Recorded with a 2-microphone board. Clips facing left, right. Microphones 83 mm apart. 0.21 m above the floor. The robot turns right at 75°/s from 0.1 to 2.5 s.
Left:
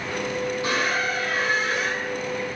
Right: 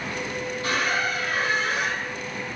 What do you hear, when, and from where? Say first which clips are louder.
0.6 s a squeak: right 2 dB; 155° left, 1.2 m; by 2.1 s 95° right, 1.2 m